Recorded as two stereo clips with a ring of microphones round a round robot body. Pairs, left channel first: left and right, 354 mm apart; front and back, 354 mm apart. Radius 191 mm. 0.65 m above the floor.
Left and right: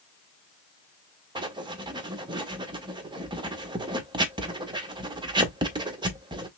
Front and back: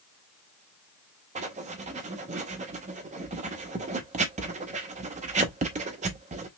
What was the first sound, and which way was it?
Writing, 150° right.